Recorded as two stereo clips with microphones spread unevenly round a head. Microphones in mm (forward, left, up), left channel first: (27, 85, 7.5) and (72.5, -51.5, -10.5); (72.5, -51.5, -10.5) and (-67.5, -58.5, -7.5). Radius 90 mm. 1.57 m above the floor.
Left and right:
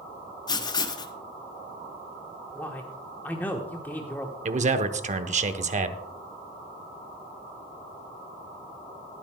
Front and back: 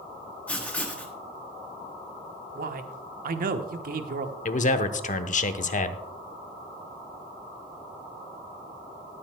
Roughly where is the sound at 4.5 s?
Ahead right.